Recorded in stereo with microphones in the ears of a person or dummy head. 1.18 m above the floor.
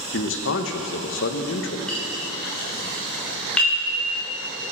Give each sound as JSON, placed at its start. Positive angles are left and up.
{"t": 0.1, "sound": "a man speaking", "side_deg": 65, "distance_m": 1.1}
{"t": 1.9, "sound": "a clink", "side_deg": 5, "distance_m": 3.0}